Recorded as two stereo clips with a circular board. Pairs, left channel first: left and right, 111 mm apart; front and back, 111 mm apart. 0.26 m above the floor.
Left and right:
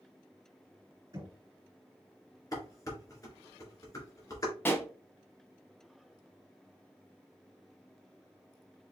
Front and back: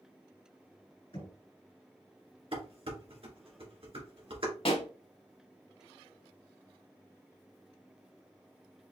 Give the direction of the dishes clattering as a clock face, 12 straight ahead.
7 o'clock.